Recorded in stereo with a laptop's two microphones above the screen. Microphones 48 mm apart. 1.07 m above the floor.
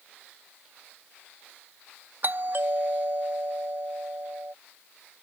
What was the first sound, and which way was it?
A doorbell, 45° right (ahead or behind).